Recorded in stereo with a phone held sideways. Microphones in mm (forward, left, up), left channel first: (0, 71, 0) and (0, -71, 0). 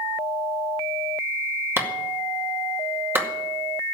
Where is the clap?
15° right (ahead or behind), 2 m.